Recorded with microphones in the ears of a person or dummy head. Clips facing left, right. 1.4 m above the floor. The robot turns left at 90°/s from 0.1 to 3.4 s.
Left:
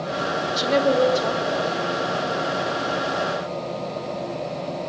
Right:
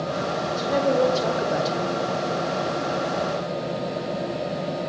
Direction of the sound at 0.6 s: 50° left.